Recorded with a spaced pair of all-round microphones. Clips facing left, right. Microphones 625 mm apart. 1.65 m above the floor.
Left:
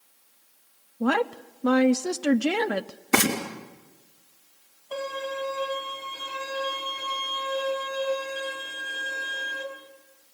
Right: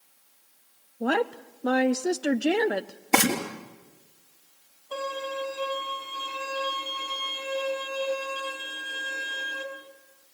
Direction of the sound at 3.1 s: 35° left (ahead or behind).